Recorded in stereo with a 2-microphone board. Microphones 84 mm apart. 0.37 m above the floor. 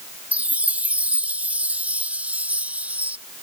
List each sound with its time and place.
0.3 s a chime: 15° right (ahead or behind)